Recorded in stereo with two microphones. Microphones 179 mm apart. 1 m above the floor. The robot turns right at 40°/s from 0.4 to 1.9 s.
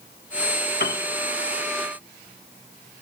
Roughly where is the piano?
Left.